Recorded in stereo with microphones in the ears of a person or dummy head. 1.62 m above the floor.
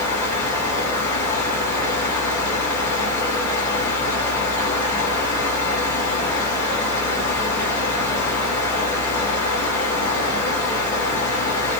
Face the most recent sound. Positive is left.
turn(degrees=5)  # may be behind; listen again after turning